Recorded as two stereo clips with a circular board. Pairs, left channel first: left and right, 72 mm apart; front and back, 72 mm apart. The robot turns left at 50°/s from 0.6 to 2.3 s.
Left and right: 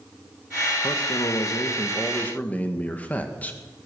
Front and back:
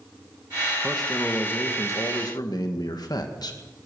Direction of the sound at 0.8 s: 95° left.